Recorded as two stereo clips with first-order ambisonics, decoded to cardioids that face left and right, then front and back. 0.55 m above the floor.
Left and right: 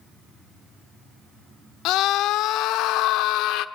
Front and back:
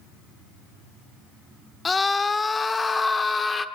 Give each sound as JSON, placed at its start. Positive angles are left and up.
{"t": 1.9, "sound": "a scream", "azimuth_deg": 75, "distance_m": 1.1}